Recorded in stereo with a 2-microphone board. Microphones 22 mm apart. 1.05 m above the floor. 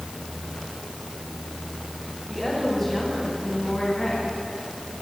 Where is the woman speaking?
10° left (ahead or behind), 8 m; by 4.2 s 20° left (ahead or behind), 9.5 m.